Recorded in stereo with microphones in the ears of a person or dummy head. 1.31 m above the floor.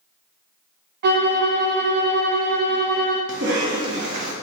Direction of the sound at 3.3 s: 60° right (ahead or behind).